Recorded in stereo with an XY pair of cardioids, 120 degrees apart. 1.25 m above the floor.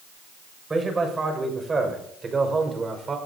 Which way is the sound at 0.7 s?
25° right.